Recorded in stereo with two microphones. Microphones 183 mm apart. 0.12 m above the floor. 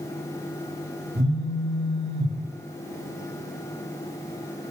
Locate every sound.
1.1 s a phone buzzing: 80° right, 5.5 m